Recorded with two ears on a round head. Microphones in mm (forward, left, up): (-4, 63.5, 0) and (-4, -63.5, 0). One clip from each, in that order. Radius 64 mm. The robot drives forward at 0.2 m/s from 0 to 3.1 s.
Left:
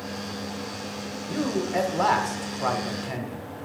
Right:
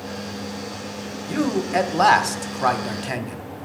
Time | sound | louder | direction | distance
1.3 | a man speaking | right 5 dB | 35° right (ahead or behind) | 0.9 m